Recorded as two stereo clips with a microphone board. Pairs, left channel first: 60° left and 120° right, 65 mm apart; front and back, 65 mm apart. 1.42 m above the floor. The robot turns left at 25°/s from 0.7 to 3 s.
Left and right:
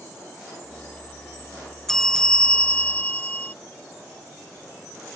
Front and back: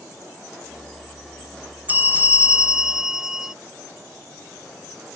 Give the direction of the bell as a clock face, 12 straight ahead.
7 o'clock.